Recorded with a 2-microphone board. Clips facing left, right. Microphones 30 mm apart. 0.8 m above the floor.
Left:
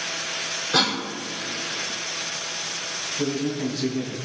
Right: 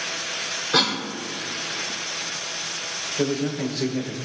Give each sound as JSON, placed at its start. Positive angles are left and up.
{"t": 0.7, "sound": "a cough", "side_deg": -10, "distance_m": 3.0}
{"t": 3.2, "sound": "a man speaking", "side_deg": -70, "distance_m": 4.0}